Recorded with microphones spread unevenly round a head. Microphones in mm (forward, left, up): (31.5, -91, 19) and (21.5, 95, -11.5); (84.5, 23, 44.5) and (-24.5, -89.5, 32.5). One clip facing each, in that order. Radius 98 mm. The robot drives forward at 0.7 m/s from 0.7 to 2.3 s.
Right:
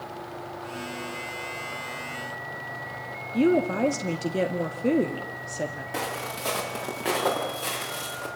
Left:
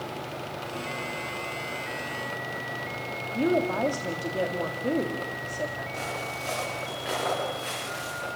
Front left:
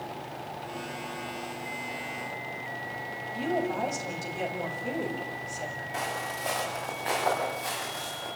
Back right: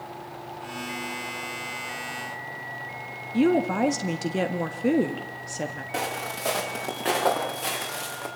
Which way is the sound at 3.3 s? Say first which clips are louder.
Right 3 dB, back right 8 dB; 155° right.